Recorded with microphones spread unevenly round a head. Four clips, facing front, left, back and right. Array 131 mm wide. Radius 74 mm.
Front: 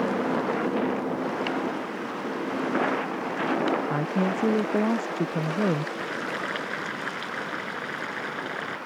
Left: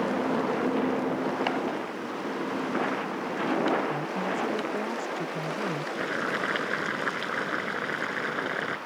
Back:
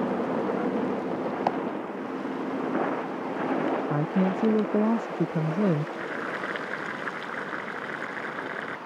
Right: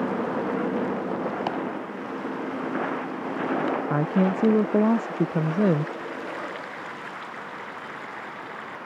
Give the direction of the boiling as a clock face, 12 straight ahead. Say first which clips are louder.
Left 3 dB, front 1 dB; 9 o'clock.